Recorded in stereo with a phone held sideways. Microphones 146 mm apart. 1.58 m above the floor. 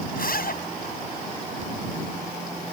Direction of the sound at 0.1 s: 70° left (ahead or behind).